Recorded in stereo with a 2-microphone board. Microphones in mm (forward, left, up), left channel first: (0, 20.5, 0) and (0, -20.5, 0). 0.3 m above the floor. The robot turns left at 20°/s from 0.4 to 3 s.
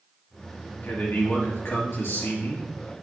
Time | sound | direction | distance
0.8 | a man speaking | 125° left | 4.5 m